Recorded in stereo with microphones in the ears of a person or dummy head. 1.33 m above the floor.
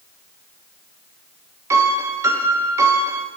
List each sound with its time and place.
1.7 s a piano: 20° right (ahead or behind), 1.2 m